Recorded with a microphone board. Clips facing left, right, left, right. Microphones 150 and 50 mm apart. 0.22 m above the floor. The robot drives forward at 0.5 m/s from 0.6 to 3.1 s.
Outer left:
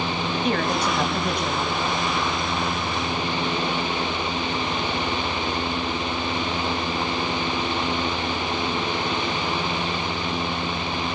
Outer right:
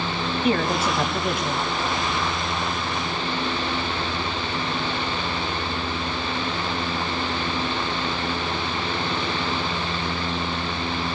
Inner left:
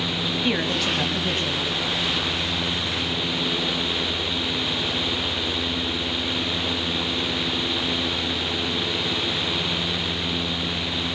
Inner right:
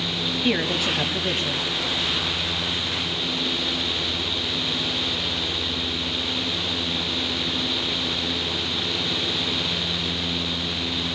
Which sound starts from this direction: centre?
A man speaking, at 0.4 s.